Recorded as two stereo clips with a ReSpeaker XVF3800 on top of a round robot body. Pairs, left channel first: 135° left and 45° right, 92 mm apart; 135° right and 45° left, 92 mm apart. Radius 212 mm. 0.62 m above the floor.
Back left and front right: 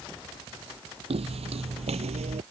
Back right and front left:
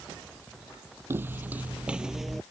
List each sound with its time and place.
1.1 s footsteps: 25° right; by 2.4 s 45° right